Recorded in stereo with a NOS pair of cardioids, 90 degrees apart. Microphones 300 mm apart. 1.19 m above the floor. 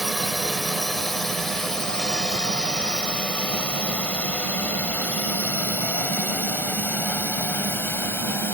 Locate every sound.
0.0 s a drone: straight ahead; by 8.6 s 5° left